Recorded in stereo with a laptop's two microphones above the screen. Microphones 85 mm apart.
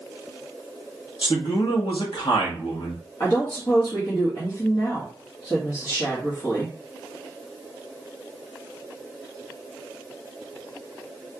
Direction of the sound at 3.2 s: 55° left (ahead or behind).